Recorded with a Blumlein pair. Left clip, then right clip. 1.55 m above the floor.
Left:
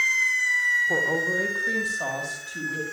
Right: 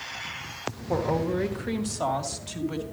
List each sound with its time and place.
0.9 s a woman speaking: 10° right, 1.3 m; by 2.8 s 25° right, 2 m